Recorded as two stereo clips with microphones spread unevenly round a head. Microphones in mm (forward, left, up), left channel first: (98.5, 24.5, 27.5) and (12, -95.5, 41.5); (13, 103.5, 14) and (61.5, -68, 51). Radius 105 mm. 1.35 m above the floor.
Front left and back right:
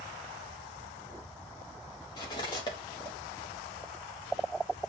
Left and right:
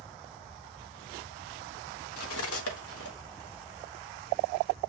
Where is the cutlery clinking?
125° left, 1.1 m.